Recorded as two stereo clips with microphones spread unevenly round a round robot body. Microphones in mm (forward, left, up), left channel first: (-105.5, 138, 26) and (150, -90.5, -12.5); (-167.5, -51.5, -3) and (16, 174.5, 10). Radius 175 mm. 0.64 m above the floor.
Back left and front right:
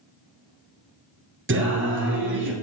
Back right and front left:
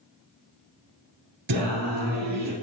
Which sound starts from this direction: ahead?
Singing, at 1.5 s.